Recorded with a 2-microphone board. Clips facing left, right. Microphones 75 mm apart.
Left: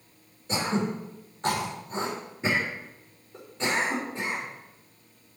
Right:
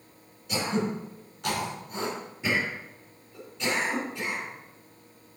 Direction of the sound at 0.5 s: 35° left (ahead or behind).